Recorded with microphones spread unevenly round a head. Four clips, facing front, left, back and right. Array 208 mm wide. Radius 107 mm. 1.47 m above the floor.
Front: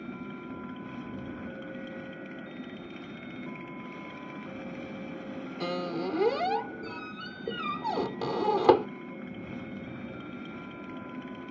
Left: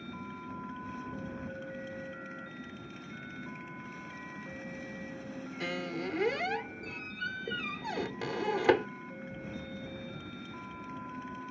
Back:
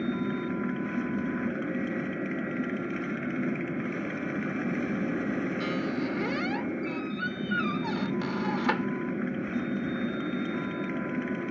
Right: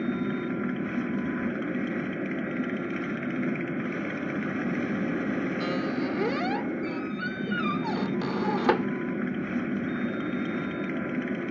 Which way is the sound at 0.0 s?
125° right.